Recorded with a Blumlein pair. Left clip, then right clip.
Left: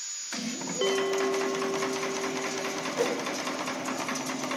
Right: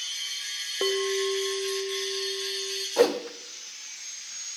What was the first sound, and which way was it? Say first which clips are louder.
A bell: even; straight ahead.